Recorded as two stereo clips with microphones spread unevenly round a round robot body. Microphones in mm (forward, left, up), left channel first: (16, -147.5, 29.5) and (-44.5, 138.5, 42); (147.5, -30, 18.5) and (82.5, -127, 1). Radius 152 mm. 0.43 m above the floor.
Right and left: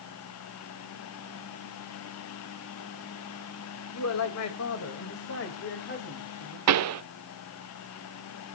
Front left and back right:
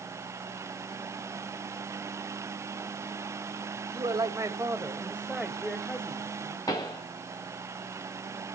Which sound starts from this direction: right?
A man speaking, at 3.9 s.